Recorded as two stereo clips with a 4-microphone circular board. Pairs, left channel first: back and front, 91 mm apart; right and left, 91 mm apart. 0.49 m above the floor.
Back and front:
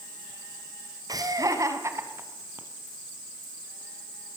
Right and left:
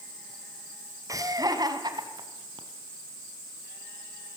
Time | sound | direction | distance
1.1 | laughter | 40° left | 3.5 m